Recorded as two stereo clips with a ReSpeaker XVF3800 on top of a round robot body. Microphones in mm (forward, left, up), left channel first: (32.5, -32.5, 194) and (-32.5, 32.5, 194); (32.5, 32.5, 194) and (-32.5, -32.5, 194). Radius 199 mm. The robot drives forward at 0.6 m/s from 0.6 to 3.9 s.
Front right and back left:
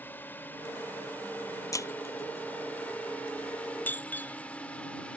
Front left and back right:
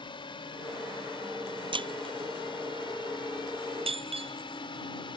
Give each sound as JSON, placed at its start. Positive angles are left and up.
{"t": 0.0, "sound": "a drone", "azimuth_deg": 25}
{"t": 1.7, "sound": "breaking glass", "azimuth_deg": -100}